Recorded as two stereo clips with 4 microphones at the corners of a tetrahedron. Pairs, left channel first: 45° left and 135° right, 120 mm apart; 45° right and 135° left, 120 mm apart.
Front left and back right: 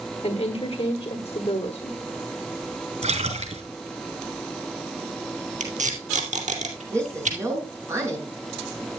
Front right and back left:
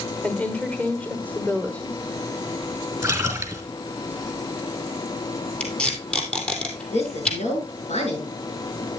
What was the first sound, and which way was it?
A woman speaking, 30° left.